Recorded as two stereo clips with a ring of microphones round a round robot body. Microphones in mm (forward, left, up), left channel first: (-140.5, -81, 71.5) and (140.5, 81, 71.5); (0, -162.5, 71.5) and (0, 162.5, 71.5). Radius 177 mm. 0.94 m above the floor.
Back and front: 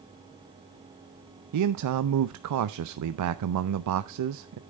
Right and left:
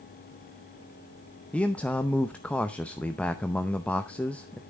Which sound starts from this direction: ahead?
A man speaking, at 1.5 s.